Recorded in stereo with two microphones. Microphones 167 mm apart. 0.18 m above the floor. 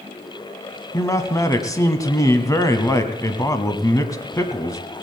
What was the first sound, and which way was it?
A man speaking, 20° left (ahead or behind).